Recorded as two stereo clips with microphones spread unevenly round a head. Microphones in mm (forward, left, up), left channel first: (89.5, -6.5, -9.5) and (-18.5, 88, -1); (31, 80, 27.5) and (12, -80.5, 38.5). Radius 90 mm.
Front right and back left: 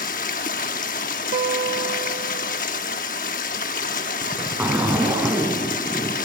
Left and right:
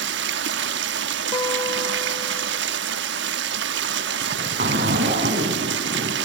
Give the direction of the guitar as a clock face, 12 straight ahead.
7 o'clock.